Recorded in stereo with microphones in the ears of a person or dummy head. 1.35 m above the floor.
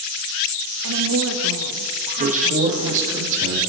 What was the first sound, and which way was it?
A woman speaking, 75° right (ahead or behind).